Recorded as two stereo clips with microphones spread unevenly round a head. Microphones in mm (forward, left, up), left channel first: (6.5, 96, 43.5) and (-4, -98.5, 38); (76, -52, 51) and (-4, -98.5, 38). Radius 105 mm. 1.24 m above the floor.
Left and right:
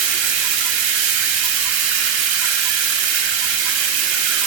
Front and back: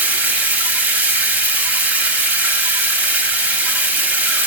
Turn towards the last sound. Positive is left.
turn(degrees=-70)